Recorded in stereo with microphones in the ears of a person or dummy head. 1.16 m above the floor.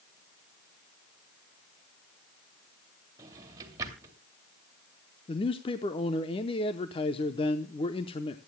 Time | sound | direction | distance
3.2 | a drawer | 20° right (ahead or behind) | 2.5 m
5.3 | a man speaking | 25° left (ahead or behind) | 0.8 m